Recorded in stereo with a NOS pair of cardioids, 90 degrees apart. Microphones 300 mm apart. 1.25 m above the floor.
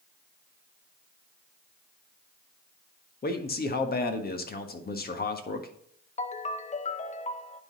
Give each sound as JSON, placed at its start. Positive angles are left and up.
{"t": 3.2, "sound": "a man speaking", "azimuth_deg": 30, "distance_m": 1.6}
{"t": 6.2, "sound": "a ringtone", "azimuth_deg": 25, "distance_m": 0.8}